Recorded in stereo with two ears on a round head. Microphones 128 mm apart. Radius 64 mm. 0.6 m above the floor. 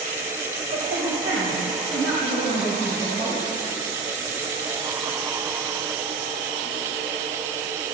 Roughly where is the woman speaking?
Right.